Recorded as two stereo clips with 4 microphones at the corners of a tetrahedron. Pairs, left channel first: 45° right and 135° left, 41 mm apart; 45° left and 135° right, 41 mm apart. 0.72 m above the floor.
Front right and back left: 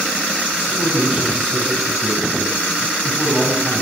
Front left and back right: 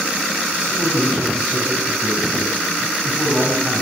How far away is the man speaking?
About 5 m.